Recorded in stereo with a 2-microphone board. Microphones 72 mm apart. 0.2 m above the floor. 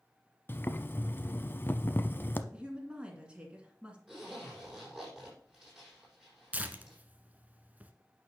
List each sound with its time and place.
0.5 s boiling: 30° left (ahead or behind), 0.8 m
2.5 s a woman speaking: 15° right (ahead or behind), 2.5 m
4.1 s a zipper: 10° right (ahead or behind), 6 m
6.5 s tearing paper: 20° right (ahead or behind), 1.0 m